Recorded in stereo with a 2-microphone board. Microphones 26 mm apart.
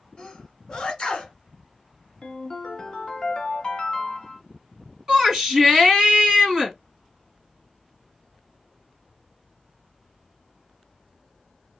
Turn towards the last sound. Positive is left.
turn(degrees=-20)  # may be behind; listen again after turning